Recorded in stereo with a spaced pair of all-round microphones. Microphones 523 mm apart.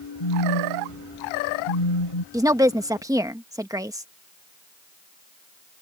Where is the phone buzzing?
70° left (ahead or behind).